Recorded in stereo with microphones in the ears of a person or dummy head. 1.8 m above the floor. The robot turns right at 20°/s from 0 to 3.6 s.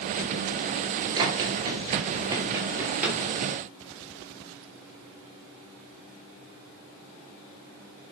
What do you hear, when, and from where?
1.2 s running footsteps: 30° right (ahead or behind), 2.0 m; by 3.2 s 5° right (ahead or behind), 3 m